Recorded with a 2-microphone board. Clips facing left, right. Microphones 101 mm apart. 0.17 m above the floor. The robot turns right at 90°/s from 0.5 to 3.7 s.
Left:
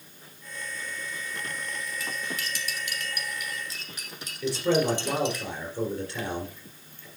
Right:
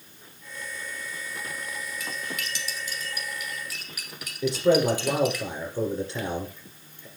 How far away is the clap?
No clap in this recording.